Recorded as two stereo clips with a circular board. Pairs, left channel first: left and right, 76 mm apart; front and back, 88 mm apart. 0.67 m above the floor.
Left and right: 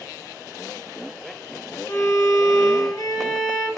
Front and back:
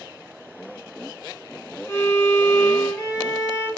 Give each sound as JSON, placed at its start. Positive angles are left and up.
{"t": 1.9, "sound": "a violin", "azimuth_deg": 50, "distance_m": 0.6}